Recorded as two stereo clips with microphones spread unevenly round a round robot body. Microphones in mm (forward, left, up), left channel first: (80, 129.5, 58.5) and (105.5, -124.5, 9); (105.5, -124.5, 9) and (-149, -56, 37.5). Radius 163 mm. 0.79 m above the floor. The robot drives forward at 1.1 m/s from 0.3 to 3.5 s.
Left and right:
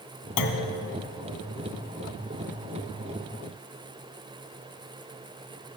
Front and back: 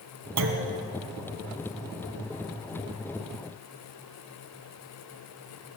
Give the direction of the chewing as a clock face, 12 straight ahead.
No chewing in this recording.